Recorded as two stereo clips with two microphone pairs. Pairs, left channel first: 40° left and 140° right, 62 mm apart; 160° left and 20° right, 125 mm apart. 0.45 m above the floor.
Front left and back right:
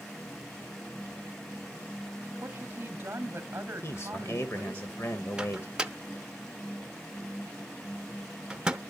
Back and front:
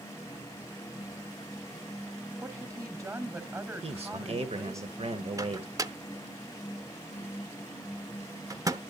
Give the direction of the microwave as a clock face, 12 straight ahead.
2 o'clock.